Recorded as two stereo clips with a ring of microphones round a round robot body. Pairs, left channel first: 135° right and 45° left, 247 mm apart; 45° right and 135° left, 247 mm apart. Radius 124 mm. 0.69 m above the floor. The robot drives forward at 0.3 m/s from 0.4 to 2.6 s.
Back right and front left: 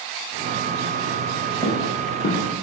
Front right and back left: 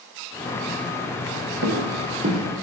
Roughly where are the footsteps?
Behind left.